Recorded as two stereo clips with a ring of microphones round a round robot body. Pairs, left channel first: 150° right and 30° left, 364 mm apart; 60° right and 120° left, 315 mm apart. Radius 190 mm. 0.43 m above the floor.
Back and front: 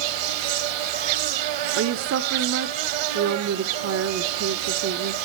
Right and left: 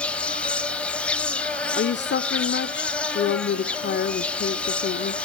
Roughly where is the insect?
Ahead left.